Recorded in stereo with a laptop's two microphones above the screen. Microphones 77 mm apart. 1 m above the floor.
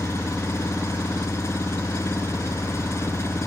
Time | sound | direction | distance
0.0 | an engine running | 35° left (ahead or behind) | ?